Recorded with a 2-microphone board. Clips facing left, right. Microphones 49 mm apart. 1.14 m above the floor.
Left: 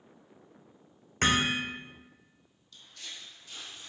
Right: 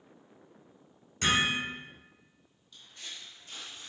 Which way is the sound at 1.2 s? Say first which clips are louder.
Left 1 dB; 50° left (ahead or behind).